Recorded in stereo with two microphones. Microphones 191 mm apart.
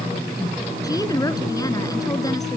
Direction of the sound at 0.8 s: 20° left (ahead or behind).